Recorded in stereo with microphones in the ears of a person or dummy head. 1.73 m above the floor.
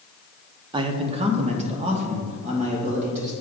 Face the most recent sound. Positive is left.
turn(degrees=-40)  # may be behind; listen again after turning